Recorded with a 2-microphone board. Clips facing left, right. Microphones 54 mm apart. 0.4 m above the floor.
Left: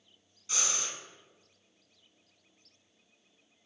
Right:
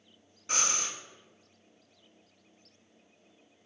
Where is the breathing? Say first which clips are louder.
Right 4 dB; 45° right (ahead or behind), 0.5 m.